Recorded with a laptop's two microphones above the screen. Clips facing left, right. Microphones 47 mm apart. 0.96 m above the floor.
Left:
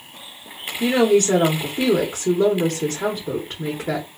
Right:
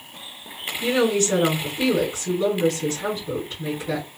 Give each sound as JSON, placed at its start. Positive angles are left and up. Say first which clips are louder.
{"t": 0.8, "sound": "a woman speaking", "louder": "left 4 dB", "side_deg": 55, "distance_m": 1.0}